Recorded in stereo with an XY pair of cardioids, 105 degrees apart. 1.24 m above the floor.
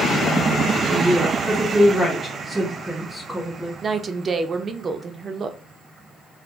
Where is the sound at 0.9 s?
5° right, 1.7 m.